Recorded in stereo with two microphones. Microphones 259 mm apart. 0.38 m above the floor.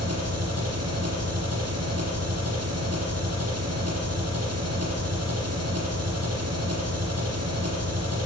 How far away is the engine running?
About 8.5 m.